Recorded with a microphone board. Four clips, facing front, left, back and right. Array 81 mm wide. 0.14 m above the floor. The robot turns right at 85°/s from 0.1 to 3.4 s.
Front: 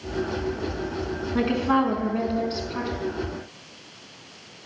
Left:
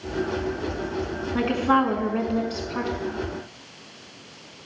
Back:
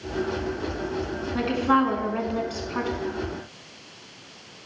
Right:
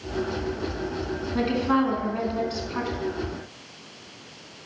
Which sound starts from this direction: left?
A woman speaking, at 1.4 s.